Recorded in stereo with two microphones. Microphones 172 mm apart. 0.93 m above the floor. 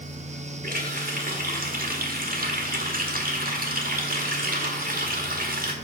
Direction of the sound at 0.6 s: 60° right (ahead or behind).